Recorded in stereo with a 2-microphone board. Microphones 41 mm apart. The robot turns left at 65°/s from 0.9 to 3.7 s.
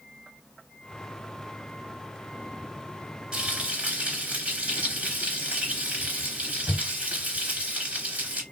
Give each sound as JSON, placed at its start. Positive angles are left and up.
{"t": 3.3, "sound": "frying", "side_deg": -20, "distance_m": 2.5}